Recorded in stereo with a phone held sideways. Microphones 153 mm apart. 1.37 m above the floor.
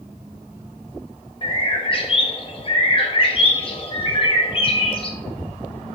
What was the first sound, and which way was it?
A bird, 35° left (ahead or behind).